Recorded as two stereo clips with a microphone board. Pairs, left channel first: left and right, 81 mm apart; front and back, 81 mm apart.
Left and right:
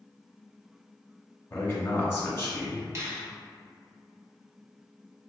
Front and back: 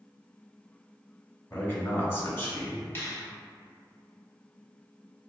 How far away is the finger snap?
About 1.0 m.